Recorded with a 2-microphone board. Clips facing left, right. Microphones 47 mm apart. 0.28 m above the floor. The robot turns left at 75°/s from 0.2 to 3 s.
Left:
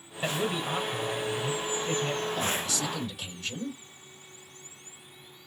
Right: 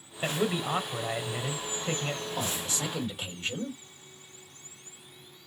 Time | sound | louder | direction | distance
0.2 | a man speaking | right 1 dB | 10° right (ahead or behind) | 1.0 m
2.4 | a man speaking | left 3 dB | 35° right | 1.6 m